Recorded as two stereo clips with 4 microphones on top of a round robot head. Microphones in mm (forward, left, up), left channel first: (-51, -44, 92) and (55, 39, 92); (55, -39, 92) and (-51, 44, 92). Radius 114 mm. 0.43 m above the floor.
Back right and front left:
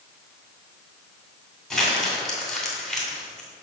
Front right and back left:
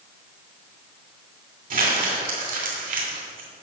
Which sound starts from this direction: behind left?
Crumpling, at 1.7 s.